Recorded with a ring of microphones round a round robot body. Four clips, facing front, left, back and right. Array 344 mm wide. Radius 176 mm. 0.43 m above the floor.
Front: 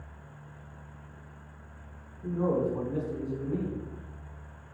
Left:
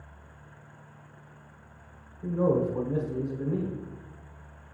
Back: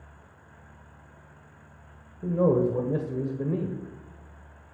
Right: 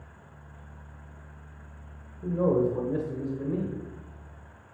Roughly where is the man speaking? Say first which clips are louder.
Right 1 dB, back 5 dB; behind.